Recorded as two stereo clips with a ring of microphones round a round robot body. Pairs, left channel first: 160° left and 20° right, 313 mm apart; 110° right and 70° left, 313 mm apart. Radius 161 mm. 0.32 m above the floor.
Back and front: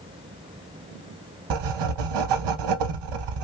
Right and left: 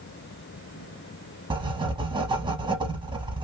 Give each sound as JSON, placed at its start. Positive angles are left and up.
{"t": 1.5, "sound": "writing", "azimuth_deg": -10, "distance_m": 0.5}